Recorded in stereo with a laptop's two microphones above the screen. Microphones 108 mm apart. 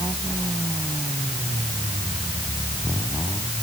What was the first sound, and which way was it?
Only background noise.